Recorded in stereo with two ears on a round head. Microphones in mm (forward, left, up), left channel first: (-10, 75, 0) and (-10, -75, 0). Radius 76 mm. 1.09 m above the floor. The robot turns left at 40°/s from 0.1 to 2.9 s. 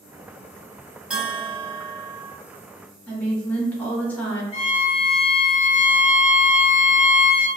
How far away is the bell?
About 1.0 m.